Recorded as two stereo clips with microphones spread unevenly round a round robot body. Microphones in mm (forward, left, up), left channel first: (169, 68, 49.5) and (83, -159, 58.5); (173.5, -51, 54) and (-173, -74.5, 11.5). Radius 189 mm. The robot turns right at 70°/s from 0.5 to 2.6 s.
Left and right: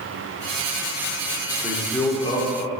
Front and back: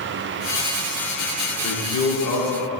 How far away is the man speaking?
About 1.3 m.